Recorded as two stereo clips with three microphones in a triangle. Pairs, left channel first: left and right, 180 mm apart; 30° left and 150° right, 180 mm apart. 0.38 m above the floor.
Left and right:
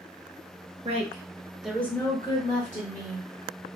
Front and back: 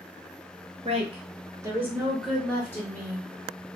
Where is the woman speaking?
120° right, 1.2 m; by 3.3 s 95° left, 1.5 m.